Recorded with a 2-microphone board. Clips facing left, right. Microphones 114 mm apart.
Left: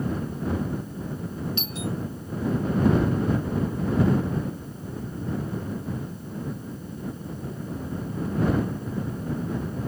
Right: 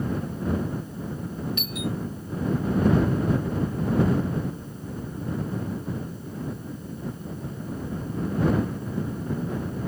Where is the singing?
I don't hear singing.